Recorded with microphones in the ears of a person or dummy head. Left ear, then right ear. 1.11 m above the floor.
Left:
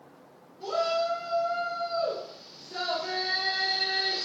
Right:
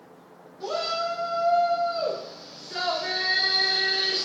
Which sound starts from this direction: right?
A shout, at 0.6 s.